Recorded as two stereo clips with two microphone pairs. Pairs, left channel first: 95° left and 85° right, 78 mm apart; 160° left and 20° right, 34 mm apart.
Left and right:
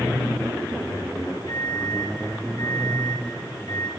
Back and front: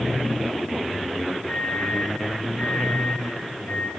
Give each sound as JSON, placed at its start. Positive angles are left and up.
{"t": 1.5, "sound": "an alarm clock", "azimuth_deg": 125, "distance_m": 5.5}